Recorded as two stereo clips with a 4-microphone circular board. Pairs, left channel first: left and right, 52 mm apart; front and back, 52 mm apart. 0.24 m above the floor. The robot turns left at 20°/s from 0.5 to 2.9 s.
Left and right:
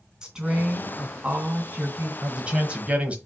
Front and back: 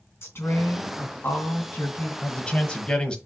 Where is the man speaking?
35° right, 1.0 m; by 3.2 s 50° right, 1.0 m.